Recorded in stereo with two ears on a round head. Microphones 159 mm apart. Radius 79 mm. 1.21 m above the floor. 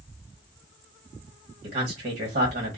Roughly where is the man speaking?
Right.